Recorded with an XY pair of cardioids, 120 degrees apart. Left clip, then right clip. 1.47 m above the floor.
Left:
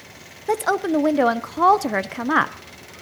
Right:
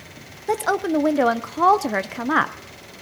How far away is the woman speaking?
About 0.6 m.